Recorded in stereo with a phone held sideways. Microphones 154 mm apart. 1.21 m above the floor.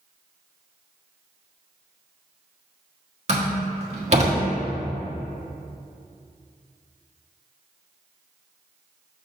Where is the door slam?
45° right (ahead or behind), 1.4 m.